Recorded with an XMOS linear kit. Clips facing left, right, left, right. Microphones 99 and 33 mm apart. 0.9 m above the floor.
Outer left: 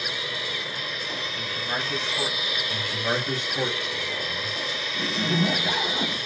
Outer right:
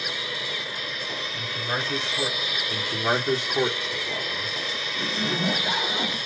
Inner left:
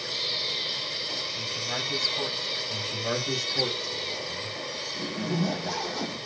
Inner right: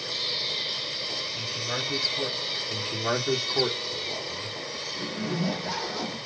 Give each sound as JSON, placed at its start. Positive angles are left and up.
{"t": 1.3, "sound": "a man speaking", "side_deg": -25, "distance_m": 3.5}
{"t": 2.7, "sound": "a man speaking", "side_deg": -35, "distance_m": 1.8}
{"t": 4.9, "sound": "a zipper", "side_deg": -20, "distance_m": 2.5}